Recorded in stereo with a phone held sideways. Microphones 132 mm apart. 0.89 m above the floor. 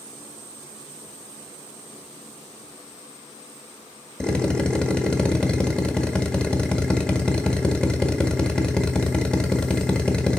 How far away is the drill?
About 1.8 m.